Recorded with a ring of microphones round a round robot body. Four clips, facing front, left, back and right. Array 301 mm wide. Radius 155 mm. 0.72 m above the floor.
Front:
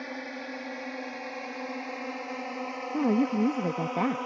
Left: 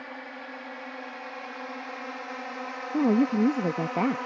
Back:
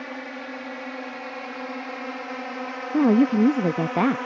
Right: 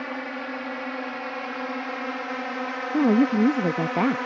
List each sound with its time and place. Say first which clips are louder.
0.0 s a drone: right 8 dB, back 3 dB; 105° right; by 4.3 s 115° right
2.9 s a woman speaking: right 3 dB, back 7 dB; 160° right